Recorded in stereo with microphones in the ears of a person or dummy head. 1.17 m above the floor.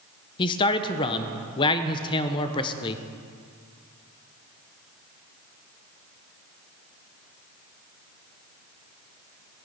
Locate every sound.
0.4 s a man speaking: 30° left (ahead or behind), 0.7 m